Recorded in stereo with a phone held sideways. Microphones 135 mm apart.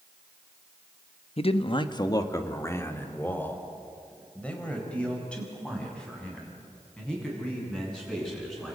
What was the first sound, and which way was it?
A man speaking, 45° left (ahead or behind).